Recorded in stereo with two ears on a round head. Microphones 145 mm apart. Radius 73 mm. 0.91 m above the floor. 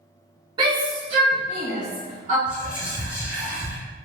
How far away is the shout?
About 0.8 m.